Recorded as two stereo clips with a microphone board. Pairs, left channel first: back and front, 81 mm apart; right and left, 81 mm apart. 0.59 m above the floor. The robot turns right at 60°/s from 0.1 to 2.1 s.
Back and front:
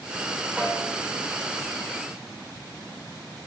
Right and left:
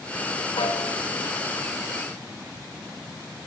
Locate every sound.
0.6 s a snare drum: 75° right, 7 m; by 1.0 s 50° right, 7 m